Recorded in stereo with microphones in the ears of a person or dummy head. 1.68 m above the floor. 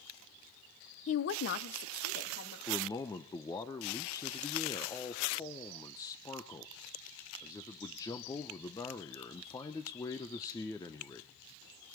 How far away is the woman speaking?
About 0.7 m.